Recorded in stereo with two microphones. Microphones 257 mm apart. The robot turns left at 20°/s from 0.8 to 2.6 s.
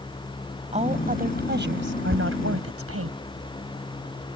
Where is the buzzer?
No buzzer in this recording.